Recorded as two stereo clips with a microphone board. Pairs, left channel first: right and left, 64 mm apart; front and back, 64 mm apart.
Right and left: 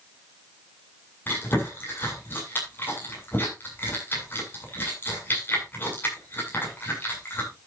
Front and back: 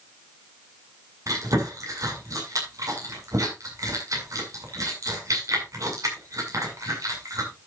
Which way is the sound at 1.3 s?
150° right.